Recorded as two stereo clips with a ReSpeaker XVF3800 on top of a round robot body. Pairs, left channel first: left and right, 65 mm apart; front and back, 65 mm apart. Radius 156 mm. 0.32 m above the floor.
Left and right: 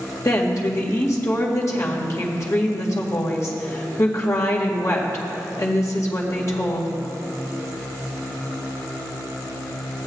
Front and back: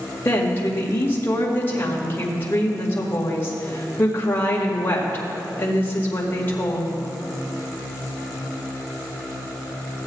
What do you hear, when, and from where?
0.2 s a woman speaking: 55° left, 2.0 m